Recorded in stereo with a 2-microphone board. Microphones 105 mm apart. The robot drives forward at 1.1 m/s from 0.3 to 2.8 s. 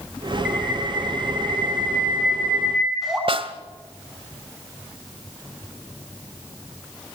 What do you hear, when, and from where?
0.5 s a bird: 5° right (ahead or behind), 4.5 m
3.3 s a snare drum: 55° right (ahead or behind), 1.6 m